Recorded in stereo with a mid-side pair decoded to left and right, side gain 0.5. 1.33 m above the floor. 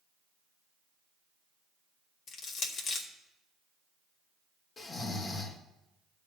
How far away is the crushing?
About 1.7 m.